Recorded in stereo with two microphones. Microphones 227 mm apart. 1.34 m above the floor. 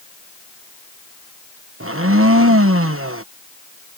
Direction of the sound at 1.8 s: 70° right (ahead or behind).